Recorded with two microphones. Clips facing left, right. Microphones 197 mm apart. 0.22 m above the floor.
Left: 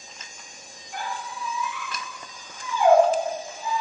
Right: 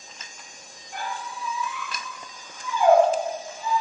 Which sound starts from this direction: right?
A squeak, at 0.9 s.